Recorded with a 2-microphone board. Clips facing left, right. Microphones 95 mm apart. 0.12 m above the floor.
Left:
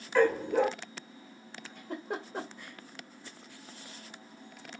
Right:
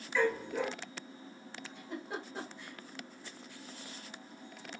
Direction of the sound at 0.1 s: 55° left (ahead or behind).